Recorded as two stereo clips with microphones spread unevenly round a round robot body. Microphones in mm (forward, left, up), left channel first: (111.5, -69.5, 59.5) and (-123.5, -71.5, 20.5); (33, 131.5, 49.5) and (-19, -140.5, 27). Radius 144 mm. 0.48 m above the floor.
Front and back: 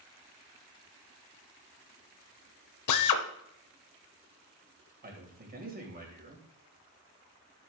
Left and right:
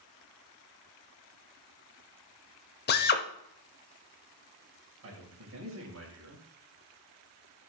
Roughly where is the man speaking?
Behind right.